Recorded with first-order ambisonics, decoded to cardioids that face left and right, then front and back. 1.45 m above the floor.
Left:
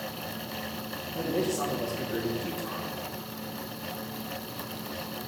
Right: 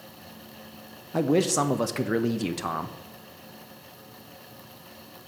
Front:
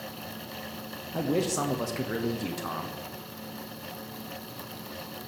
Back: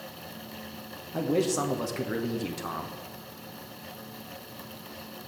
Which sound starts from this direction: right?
A man speaking, at 1.1 s.